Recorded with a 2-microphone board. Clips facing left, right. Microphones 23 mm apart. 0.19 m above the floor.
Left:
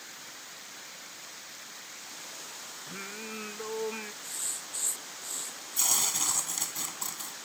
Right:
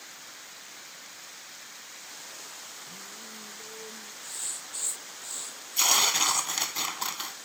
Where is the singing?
80° left.